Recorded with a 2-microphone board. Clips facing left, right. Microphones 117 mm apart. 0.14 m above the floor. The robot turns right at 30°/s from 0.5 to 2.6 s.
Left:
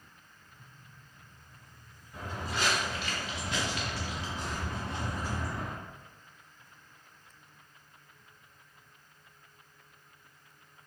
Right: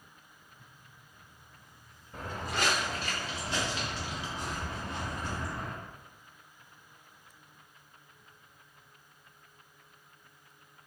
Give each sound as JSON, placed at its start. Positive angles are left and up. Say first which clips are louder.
{"t": 2.1, "sound": "footsteps", "louder": "right 1 dB", "side_deg": -45, "distance_m": 1.7}